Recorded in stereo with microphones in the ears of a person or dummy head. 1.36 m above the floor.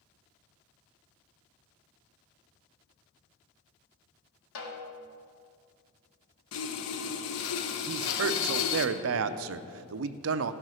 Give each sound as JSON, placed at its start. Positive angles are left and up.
{"t": 4.5, "sound": "a snare drum", "side_deg": 75, "distance_m": 1.6}
{"t": 6.5, "sound": "sawing", "side_deg": 85, "distance_m": 0.8}
{"t": 7.9, "sound": "a man speaking", "side_deg": -75, "distance_m": 0.5}